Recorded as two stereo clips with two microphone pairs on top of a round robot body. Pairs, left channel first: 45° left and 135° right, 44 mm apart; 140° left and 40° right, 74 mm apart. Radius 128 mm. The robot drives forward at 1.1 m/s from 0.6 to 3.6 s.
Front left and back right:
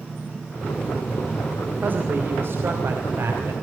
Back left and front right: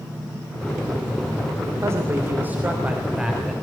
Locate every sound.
1.8 s a man speaking: 90° right, 3 m; by 3.5 s 125° right, 3.5 m